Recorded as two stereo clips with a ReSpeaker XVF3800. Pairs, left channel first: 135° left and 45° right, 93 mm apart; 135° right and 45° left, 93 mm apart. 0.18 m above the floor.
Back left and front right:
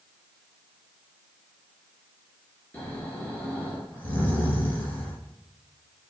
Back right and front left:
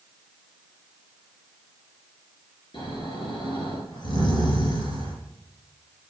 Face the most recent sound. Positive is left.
turn(degrees=-155)